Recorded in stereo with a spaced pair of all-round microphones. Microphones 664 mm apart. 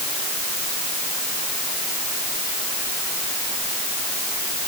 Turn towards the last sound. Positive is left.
No sound to turn to.